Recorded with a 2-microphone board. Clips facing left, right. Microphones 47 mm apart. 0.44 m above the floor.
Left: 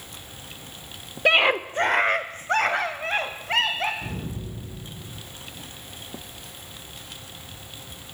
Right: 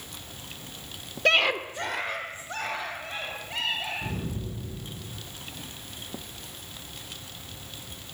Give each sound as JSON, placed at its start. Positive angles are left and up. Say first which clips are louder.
{"t": 1.2, "sound": "a scream", "louder": "left 4 dB", "side_deg": 15, "distance_m": 0.8}
{"t": 4.0, "sound": "an explosion", "louder": "even", "side_deg": 0, "distance_m": 9.5}